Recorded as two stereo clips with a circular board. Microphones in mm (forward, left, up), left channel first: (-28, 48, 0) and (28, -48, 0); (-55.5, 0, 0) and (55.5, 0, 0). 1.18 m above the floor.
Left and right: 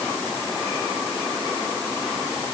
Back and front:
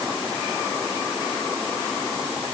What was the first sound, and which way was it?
Only background noise.